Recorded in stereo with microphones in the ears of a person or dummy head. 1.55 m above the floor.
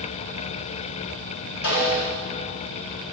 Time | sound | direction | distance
1.6 | a snare drum | 65° left (ahead or behind) | 3 m